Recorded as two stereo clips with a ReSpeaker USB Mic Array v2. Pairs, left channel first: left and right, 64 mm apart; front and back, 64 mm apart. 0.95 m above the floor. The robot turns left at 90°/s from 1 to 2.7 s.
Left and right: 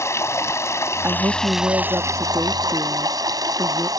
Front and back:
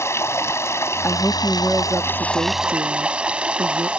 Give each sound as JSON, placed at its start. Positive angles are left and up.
{"t": 0.0, "sound": "running water", "azimuth_deg": 45}
{"t": 1.0, "sound": "a woman speaking", "azimuth_deg": -45}